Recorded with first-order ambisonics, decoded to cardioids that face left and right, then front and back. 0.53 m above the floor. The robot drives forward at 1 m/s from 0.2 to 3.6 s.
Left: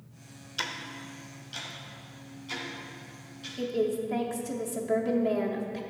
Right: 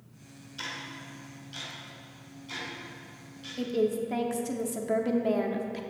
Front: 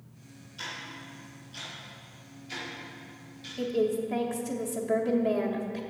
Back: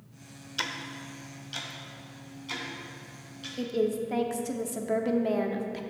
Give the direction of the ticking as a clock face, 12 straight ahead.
7 o'clock.